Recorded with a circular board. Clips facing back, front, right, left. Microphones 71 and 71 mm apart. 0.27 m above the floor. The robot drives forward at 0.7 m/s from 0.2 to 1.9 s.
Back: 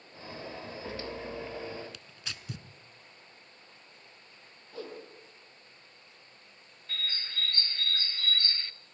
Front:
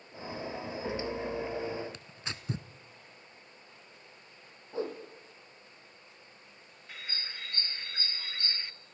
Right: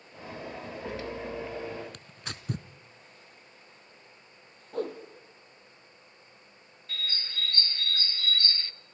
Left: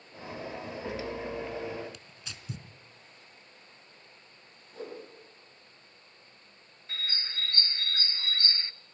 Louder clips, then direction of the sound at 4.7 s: Front 6 dB, right 8 dB; 65° right.